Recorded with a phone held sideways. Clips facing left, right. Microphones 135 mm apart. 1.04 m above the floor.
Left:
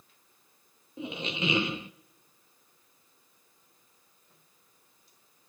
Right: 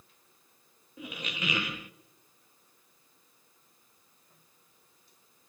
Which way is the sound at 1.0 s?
25° left (ahead or behind).